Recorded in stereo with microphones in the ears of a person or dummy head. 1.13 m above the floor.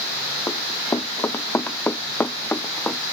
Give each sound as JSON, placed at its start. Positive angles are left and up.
{"t": 0.5, "sound": "running footsteps", "side_deg": 15}